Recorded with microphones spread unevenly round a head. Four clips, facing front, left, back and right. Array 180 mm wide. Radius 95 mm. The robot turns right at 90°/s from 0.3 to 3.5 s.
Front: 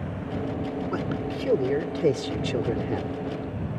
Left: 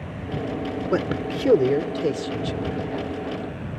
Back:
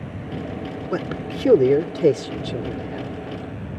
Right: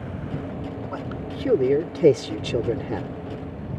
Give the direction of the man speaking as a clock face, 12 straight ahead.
8 o'clock.